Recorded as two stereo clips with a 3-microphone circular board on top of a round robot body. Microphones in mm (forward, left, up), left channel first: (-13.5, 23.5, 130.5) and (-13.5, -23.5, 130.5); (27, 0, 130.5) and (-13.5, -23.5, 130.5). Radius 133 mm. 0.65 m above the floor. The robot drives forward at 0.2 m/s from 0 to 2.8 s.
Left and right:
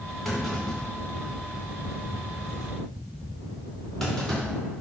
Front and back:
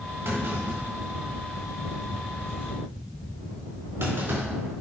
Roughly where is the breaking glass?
I don't hear breaking glass.